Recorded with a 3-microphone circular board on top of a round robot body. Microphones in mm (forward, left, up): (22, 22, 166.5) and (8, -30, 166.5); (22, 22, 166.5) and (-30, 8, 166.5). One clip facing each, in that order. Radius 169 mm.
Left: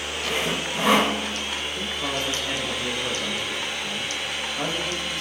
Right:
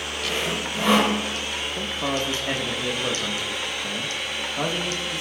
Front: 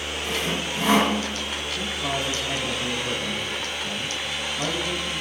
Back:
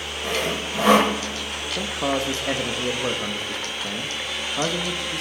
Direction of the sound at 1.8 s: Straight behind.